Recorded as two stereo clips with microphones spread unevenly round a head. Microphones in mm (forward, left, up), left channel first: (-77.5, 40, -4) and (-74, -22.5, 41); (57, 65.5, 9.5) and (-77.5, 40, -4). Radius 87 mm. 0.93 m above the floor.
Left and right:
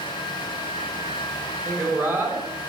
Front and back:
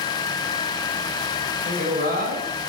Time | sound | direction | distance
1.6 | a woman speaking | 150° right | 5.5 m